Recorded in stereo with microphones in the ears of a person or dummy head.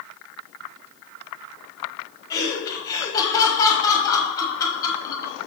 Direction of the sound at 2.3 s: 25° left (ahead or behind).